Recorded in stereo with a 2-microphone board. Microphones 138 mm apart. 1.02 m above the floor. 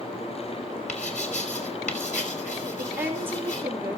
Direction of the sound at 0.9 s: 55° left (ahead or behind).